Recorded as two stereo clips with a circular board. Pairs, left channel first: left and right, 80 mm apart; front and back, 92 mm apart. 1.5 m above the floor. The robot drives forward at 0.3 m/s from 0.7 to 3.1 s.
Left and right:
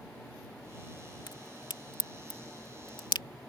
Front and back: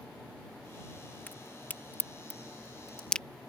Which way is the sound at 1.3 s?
70° left.